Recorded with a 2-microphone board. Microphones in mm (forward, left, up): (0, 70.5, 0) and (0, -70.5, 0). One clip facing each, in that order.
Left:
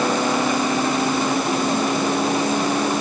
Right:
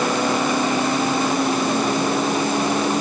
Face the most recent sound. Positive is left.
No sound to turn to.